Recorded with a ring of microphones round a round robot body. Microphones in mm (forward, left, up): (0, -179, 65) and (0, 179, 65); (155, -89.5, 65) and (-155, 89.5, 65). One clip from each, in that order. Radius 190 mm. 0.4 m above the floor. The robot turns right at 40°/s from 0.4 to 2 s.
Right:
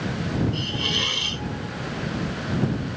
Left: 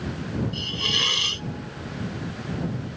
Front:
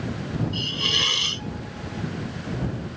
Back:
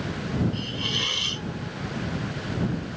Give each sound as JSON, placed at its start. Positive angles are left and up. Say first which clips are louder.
{"t": 0.5, "sound": "a hiss", "louder": "left 3 dB, front 8 dB", "azimuth_deg": 15}